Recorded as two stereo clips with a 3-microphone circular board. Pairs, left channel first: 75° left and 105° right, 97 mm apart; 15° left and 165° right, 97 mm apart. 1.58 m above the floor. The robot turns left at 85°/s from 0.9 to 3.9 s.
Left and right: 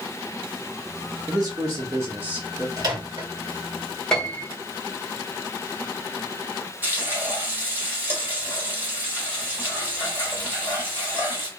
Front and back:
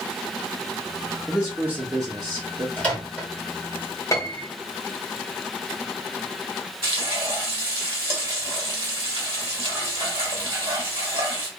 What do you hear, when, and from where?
1.3 s a man speaking: 80° right, 0.5 m; by 2.7 s 160° left, 0.5 m
2.8 s a microwave: 55° right, 1.5 m; by 3.3 s 100° right, 1.5 m
4.1 s a piano: straight ahead, 0.9 m
6.8 s frying: 170° right, 1.6 m